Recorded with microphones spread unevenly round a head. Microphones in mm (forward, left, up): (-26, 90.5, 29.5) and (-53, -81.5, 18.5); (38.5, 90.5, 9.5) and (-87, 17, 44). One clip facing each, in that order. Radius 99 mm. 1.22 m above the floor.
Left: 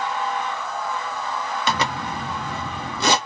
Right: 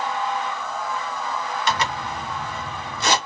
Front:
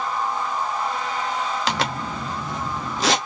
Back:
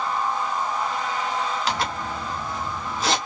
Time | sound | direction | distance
1.7 | a zipper | 50° left | 1.2 m